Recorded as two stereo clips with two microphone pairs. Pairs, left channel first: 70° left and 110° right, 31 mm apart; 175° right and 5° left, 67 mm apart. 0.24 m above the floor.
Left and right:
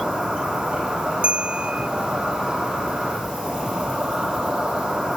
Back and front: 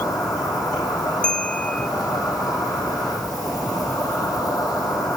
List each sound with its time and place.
0.0 s an insect: 170° right, 7 m
1.2 s a bell: 110° right, 0.5 m